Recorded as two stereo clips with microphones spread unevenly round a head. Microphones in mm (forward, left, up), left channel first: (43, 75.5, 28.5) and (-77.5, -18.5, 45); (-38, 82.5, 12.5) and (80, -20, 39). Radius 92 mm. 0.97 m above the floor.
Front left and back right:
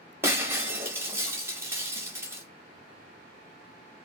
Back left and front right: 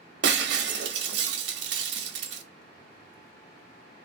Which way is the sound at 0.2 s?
65° right.